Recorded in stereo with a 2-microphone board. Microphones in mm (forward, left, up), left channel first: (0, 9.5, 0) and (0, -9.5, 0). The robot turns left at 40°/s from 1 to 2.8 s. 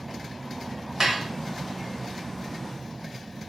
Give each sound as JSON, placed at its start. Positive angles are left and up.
{"t": 1.0, "sound": "dishes clattering", "side_deg": -25, "distance_m": 0.6}